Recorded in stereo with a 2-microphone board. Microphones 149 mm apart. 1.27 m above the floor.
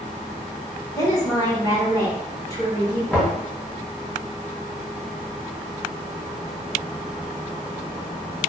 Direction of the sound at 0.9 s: 20° left (ahead or behind).